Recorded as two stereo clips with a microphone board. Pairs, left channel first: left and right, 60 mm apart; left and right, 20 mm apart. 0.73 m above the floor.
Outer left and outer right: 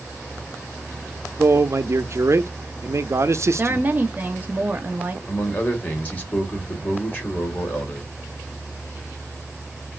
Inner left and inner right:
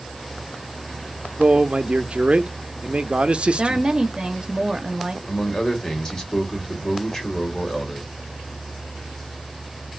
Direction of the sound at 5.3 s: 30° left (ahead or behind).